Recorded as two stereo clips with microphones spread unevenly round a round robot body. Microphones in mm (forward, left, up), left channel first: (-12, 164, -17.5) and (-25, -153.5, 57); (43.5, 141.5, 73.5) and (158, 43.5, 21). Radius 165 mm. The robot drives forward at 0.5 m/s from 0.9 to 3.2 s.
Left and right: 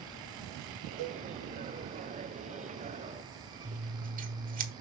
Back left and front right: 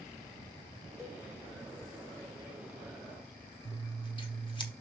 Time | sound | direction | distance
1.0 | a cowbell | 125° right | 1.1 m
3.6 | scissors | 155° right | 1.2 m